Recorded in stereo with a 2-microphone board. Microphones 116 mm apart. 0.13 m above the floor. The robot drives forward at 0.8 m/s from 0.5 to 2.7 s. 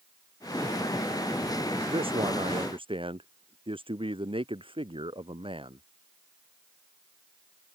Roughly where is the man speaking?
Right.